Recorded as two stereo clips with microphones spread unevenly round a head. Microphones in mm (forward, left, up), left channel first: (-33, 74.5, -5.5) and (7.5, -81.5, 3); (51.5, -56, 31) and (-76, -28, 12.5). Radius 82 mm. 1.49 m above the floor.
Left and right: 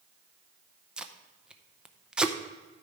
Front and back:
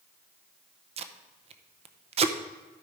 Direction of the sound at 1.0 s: 155° right.